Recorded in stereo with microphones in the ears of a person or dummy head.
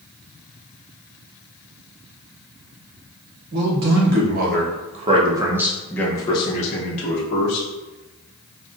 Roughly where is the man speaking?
Right.